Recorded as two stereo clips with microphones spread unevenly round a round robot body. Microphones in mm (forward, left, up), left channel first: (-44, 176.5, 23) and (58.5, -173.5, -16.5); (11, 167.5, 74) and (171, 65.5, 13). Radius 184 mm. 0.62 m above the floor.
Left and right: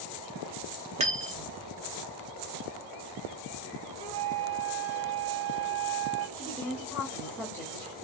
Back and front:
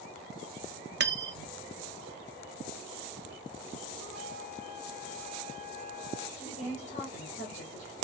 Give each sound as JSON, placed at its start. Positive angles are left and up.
{"t": 1.0, "sound": "cutlery clinking", "azimuth_deg": 0, "distance_m": 0.6}
{"t": 4.0, "sound": "a flute", "azimuth_deg": -60, "distance_m": 0.7}
{"t": 6.4, "sound": "a woman speaking", "azimuth_deg": -165, "distance_m": 1.2}